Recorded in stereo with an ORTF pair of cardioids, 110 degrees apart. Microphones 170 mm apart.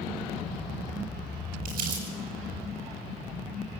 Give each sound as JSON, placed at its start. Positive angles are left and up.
{"t": 1.6, "sound": "crumpling", "azimuth_deg": -60, "distance_m": 9.5}